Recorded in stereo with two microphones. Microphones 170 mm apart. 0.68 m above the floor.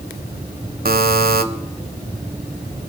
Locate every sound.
0.8 s a buzzer: 60° right (ahead or behind), 1.0 m